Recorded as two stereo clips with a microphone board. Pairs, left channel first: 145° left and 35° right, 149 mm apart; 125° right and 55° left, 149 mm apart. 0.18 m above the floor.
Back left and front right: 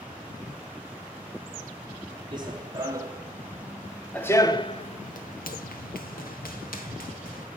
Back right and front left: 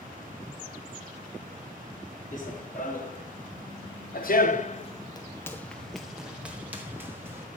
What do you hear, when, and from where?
2.3 s running footsteps: 95° right, 1.6 m; by 7.5 s 130° left, 1.9 m